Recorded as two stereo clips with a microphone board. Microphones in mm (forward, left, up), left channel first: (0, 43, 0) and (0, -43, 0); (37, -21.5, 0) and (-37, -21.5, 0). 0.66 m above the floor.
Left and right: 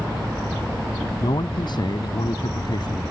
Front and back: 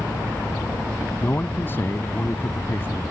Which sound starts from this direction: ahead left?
A man speaking, at 1.2 s.